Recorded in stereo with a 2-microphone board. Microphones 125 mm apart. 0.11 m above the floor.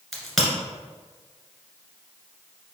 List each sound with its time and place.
0.1 s a crack: centre (ahead or behind), 1.6 m